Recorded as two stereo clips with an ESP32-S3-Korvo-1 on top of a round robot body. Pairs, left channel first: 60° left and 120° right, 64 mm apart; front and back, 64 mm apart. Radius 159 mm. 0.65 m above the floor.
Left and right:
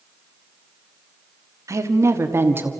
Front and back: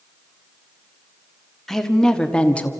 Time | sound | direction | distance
1.7 | a woman speaking | 85° right | 1.8 m